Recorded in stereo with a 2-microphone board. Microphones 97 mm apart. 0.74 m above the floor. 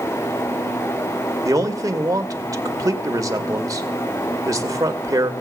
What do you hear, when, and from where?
1.4 s a man speaking: 35° right (ahead or behind), 2 m